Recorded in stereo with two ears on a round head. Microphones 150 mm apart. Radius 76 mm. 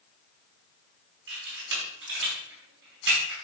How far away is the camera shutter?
About 4.5 m.